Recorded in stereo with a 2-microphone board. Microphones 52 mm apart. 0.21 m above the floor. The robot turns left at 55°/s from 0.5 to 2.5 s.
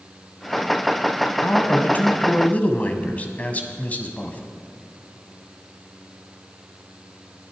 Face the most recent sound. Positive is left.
turn(degrees=65)